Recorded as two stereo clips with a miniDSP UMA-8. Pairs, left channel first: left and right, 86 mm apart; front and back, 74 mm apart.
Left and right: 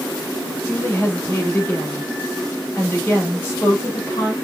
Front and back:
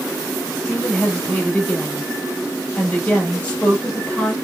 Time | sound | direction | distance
0.7 | a woman speaking | 60° left | 1.0 m